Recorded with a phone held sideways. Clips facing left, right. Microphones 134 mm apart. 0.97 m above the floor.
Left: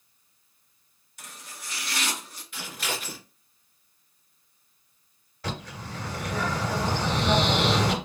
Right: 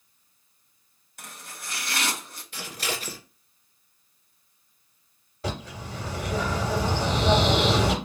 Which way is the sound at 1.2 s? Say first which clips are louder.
Right 2 dB; 50° right (ahead or behind).